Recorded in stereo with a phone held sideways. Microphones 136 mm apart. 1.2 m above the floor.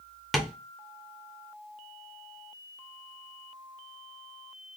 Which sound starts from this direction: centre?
Tapping, at 0.3 s.